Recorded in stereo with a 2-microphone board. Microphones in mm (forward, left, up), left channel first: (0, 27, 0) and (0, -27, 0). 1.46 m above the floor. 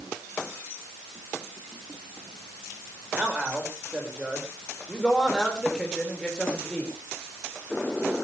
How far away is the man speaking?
About 6.5 m.